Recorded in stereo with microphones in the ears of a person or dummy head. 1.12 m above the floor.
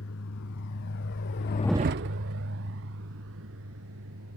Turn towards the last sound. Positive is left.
turn(degrees=-70)  # may be behind; listen again after turning